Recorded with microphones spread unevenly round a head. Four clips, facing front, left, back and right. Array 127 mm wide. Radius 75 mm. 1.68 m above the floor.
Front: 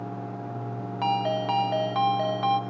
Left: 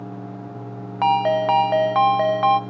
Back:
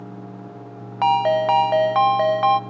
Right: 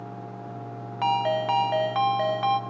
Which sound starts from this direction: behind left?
A ringtone, at 1.0 s.